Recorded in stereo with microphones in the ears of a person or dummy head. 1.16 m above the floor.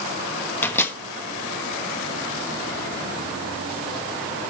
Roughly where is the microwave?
Centre.